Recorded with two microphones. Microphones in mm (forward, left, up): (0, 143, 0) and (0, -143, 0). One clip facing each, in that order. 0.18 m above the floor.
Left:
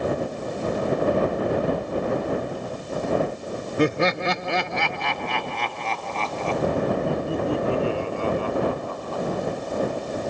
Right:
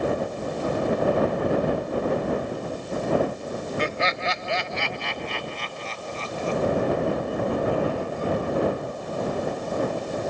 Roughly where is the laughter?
Left.